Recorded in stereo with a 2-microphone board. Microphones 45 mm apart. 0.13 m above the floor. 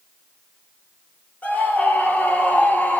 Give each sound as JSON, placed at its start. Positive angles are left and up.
{"t": 1.4, "sound": "a scream", "side_deg": 35, "distance_m": 3.0}